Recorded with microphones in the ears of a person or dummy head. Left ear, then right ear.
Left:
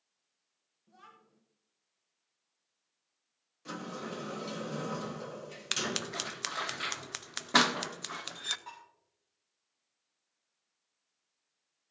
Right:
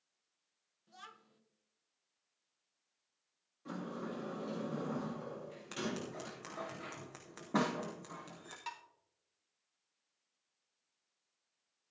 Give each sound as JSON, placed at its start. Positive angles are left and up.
{"t": 0.9, "sound": "a child speaking", "side_deg": -45, "distance_m": 0.9}
{"t": 3.6, "sound": "a sliding door", "side_deg": 80, "distance_m": 1.7}
{"t": 5.7, "sound": "scissors", "side_deg": 70, "distance_m": 0.6}
{"t": 8.7, "sound": "dishes clattering", "side_deg": -55, "distance_m": 1.3}